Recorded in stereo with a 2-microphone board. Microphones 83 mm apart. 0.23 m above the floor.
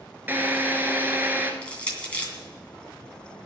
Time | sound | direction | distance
0.3 | a drill | 25° right (ahead or behind) | 1.5 m
1.6 | crushing | 15° left (ahead or behind) | 2.5 m